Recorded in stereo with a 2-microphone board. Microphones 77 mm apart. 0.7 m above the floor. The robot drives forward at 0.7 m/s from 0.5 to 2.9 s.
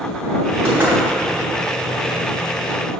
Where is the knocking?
30° right (ahead or behind), 3 m; by 0.9 s 25° right (ahead or behind), 3 m.